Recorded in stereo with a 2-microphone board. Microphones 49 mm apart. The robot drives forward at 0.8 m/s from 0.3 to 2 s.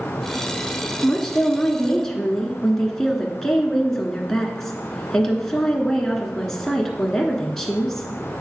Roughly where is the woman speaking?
Centre.